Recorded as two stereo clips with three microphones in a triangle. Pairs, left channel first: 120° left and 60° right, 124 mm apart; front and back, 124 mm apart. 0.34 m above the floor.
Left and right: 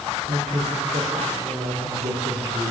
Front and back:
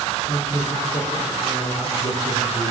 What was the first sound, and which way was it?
A man speaking, 30° right.